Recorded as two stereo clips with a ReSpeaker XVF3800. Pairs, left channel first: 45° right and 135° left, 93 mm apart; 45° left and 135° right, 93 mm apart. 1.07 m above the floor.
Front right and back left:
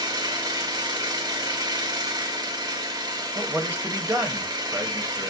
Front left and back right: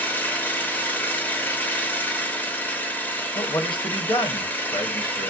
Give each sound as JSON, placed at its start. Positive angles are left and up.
{"t": 0.0, "sound": "an engine running", "azimuth_deg": 110, "distance_m": 0.7}
{"t": 3.4, "sound": "a man speaking", "azimuth_deg": 70, "distance_m": 1.0}